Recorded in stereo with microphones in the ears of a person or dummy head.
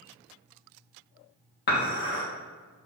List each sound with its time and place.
1.7 s dishes clattering: 60° left (ahead or behind), 1.9 m